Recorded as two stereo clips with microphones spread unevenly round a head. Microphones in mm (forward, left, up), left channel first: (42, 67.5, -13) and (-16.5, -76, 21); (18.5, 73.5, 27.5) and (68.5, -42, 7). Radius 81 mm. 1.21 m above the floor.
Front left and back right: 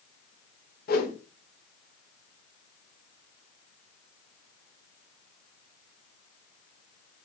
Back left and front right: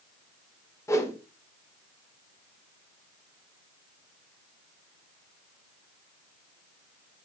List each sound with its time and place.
0.9 s a whoosh: 45° left, 1.3 m